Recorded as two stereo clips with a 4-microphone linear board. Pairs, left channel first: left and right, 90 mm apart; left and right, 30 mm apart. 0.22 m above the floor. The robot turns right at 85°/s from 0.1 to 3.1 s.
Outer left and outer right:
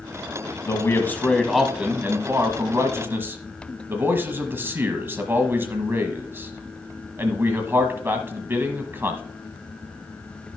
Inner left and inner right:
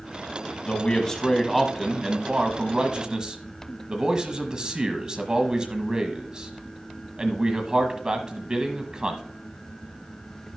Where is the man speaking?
105° left, 1.3 m; by 9.2 s 45° right, 1.3 m.